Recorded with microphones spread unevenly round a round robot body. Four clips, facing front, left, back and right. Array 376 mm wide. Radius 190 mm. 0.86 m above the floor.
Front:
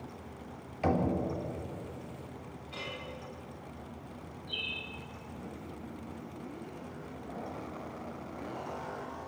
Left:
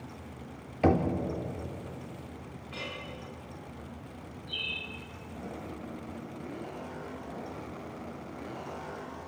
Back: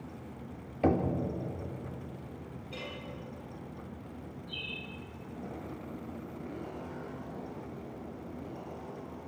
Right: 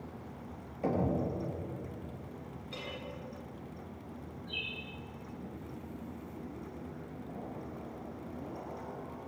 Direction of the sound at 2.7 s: 160° right.